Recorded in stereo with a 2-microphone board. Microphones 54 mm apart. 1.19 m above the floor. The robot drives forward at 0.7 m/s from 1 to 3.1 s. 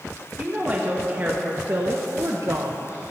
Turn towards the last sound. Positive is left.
turn(degrees=-70)  # may be behind; listen again after turning